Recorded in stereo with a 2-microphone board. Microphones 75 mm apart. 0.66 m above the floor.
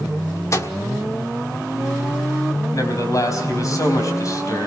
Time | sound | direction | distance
0.5 | a microwave | 45° left (ahead or behind) | 1.4 m
2.7 | a man speaking | 50° left (ahead or behind) | 4.5 m